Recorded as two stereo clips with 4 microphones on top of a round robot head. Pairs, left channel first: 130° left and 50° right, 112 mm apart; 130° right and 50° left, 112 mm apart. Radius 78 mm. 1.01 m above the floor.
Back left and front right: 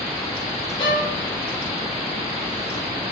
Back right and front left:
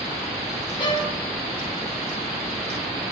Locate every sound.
0.8 s a violin: straight behind, 2.5 m